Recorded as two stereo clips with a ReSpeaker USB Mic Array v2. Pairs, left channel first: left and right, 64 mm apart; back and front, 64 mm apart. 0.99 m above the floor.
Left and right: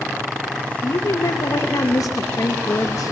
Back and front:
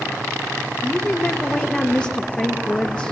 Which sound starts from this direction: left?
A woman speaking, at 0.8 s.